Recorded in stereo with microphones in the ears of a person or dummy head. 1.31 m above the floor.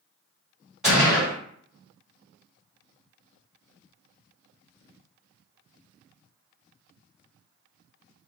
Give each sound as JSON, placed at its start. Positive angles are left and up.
{"t": 0.8, "sound": "a gunshot", "side_deg": -5, "distance_m": 1.6}